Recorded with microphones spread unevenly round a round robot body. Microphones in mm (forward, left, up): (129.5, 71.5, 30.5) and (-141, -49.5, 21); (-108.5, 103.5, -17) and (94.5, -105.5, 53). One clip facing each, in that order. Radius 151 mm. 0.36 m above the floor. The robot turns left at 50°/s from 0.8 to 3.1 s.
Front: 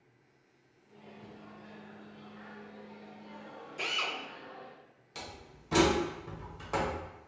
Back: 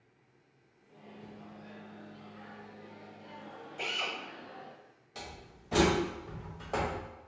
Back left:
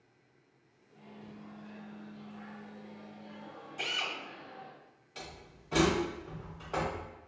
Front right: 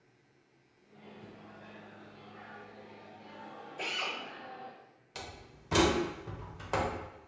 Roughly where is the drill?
Left.